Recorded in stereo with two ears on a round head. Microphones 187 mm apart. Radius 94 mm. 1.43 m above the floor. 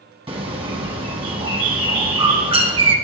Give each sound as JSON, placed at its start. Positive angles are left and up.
{"t": 0.3, "sound": "a bird", "side_deg": -25, "distance_m": 1.1}